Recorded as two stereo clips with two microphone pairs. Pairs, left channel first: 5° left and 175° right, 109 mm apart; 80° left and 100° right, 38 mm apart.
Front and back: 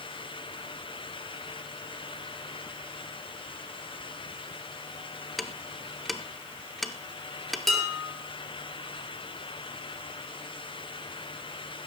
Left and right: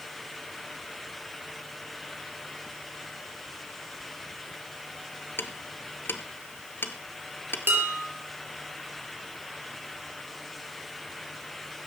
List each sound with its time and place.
5.4 s ticking: 90° left, 0.9 m
7.7 s dishes clattering: 85° right, 4 m